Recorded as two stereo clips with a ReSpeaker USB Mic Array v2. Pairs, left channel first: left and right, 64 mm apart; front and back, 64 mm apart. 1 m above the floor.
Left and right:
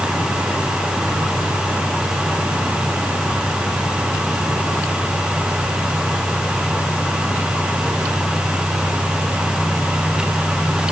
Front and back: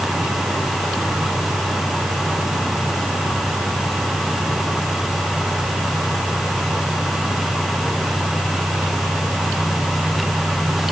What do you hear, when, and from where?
Only background noise.